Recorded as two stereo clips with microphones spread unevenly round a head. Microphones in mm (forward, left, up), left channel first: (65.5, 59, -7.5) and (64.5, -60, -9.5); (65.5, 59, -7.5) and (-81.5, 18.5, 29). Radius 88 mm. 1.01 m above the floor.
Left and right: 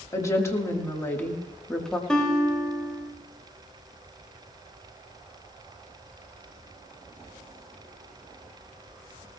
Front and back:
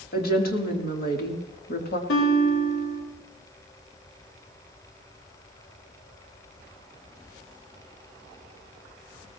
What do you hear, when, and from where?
0.1 s a woman speaking: 30° left, 3 m; by 2.0 s 5° left, 2.5 m
2.1 s a guitar: 5° left, 4 m